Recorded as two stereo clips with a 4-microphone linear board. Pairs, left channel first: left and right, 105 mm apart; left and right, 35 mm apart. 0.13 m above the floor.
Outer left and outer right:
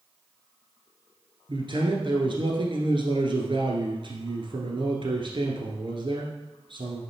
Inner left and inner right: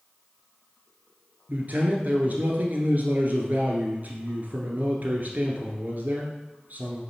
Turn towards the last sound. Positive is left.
turn(degrees=-55)  # may be behind; listen again after turning